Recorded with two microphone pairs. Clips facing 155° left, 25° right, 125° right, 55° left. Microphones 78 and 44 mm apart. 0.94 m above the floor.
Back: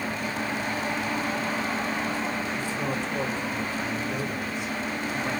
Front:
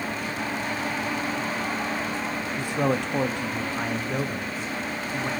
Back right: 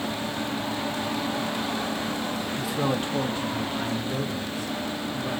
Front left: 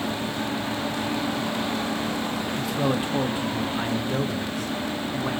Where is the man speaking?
45° right, 1.5 m; by 5.3 s 40° left, 1.7 m.